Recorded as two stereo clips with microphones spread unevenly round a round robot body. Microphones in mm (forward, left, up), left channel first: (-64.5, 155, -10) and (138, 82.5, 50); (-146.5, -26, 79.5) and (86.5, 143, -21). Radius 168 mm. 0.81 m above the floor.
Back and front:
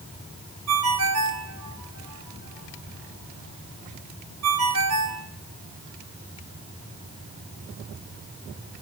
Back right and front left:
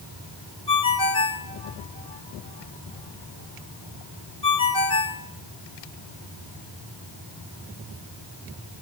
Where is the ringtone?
70° right, 2.5 m.